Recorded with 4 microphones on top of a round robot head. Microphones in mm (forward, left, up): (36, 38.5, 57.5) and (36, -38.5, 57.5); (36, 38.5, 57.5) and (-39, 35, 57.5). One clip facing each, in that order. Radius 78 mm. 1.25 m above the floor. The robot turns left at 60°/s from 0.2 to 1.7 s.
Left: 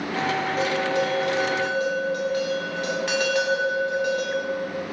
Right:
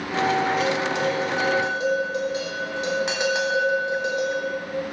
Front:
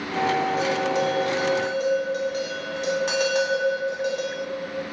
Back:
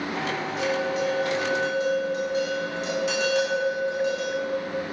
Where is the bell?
45° left, 0.9 m; by 4.4 s 25° right, 0.9 m.